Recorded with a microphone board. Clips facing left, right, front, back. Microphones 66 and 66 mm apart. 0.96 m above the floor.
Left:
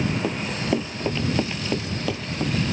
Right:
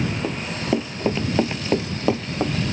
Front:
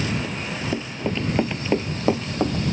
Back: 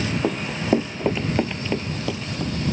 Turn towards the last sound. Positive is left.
turn(degrees=-30)